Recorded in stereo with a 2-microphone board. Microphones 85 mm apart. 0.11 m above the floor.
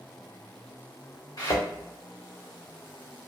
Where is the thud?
50° left (ahead or behind), 1.8 m.